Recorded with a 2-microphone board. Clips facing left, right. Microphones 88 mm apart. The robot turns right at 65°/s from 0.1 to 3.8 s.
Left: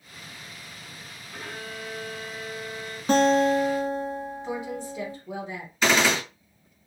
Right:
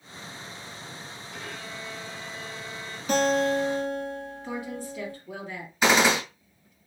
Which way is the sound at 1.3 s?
50° left.